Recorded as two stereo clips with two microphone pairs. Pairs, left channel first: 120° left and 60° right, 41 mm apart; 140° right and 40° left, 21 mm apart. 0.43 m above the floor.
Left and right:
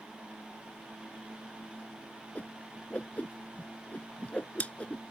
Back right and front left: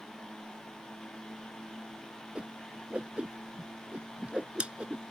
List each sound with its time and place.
2.4 s a whoosh: 65° left